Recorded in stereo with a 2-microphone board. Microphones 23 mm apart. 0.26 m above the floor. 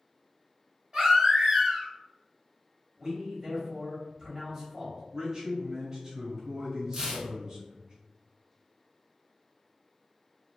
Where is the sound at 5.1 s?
20° right (ahead or behind), 1.1 m.